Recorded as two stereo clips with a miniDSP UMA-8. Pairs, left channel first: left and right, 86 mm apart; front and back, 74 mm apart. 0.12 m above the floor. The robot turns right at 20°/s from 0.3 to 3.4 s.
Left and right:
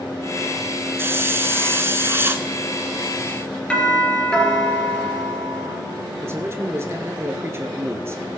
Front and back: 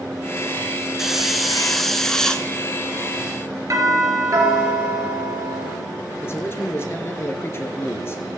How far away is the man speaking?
About 1.5 m.